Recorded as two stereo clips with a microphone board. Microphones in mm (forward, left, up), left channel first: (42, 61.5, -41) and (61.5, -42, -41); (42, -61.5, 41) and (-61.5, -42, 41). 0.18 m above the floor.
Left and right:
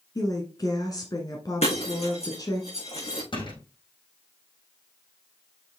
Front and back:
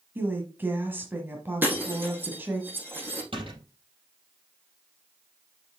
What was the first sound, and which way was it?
A woman speaking, 115° left.